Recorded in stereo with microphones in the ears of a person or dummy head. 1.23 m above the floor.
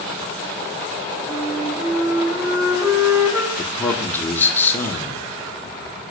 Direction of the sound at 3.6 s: 15° left (ahead or behind).